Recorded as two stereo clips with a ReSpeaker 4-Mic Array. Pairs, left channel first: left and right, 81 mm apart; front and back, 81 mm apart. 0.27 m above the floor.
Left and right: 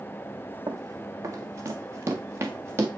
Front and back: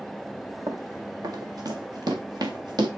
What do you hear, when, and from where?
0.7 s running footsteps: 135° right, 1.5 m; by 2.9 s 150° right, 3.5 m